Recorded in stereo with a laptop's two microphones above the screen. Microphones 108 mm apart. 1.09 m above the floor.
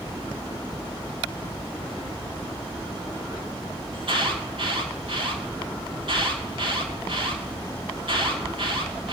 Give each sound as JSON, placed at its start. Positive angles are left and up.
{"t": 3.9, "sound": "an alarm", "side_deg": -60, "distance_m": 2.5}